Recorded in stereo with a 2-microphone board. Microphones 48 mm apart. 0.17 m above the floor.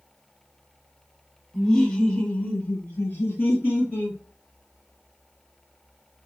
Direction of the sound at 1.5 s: 5° left (ahead or behind).